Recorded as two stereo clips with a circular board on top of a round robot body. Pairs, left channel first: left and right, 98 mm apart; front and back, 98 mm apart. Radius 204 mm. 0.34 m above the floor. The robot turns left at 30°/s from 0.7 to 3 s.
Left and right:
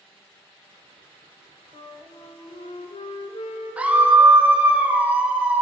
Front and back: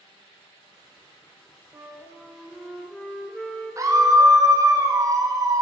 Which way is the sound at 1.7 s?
120° left.